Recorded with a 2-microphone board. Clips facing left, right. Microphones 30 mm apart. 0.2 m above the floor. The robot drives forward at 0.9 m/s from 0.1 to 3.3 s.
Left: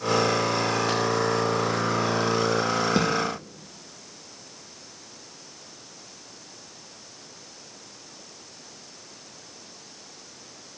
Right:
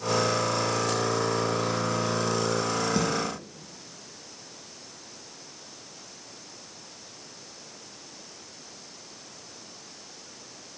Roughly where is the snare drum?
Left.